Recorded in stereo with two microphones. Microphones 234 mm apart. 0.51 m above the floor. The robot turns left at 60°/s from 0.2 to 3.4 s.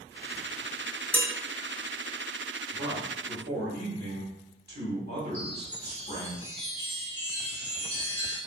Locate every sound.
1.1 s dishes clattering: 5° left (ahead or behind), 0.7 m; by 1.3 s 10° left (ahead or behind), 0.7 m
2.7 s a man speaking: 50° right, 1.2 m; by 6.3 s 95° right, 1.2 m
5.3 s a chime: 50° left (ahead or behind), 1.2 m